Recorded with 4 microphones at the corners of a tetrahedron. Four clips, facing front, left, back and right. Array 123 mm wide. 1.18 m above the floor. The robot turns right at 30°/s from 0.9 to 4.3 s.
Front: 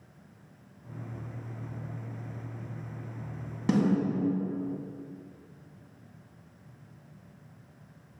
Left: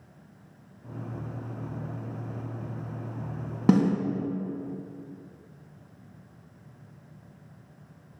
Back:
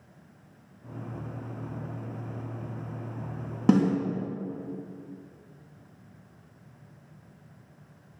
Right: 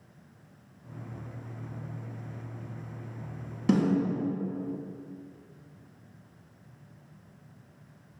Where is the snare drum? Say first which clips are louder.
Left 3 dB, back 3 dB; 125° left, 3 m; by 4.0 s 135° left, 3 m.